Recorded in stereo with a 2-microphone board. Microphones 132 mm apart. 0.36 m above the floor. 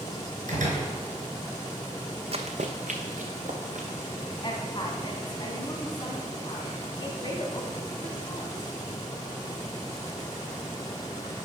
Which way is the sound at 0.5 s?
70° right (ahead or behind).